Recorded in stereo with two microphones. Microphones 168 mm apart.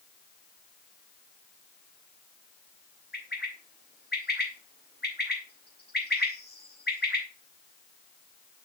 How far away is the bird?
About 4.5 m.